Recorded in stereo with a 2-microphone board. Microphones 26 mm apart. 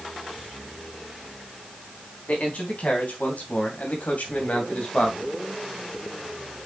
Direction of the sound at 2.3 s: 55° left (ahead or behind).